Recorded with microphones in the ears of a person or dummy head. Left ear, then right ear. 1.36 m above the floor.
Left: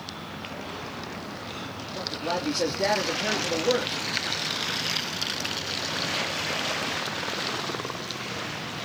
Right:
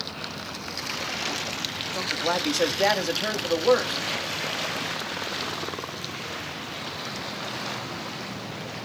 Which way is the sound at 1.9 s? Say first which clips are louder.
Right 3 dB; 50° right (ahead or behind).